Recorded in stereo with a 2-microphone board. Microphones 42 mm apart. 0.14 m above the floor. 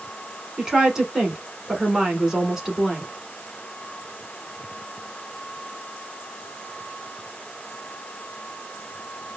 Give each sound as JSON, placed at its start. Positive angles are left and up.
{"t": 0.6, "sound": "a woman speaking", "side_deg": -15, "distance_m": 1.0}